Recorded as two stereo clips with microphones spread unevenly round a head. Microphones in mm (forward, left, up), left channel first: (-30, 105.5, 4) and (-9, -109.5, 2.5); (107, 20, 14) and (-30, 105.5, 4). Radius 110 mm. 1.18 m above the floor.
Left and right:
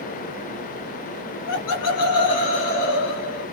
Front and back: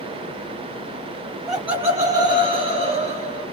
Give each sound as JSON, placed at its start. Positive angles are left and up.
{"t": 1.5, "sound": "laughter", "azimuth_deg": 75, "distance_m": 0.7}